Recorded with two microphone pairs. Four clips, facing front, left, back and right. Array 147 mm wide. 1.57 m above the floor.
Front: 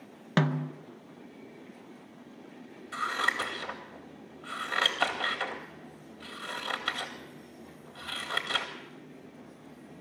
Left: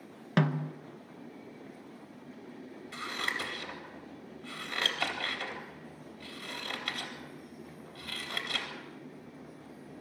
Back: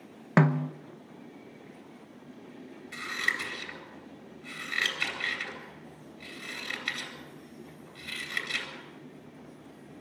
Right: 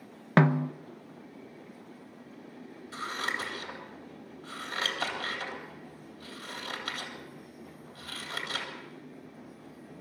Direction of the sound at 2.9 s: 5° left.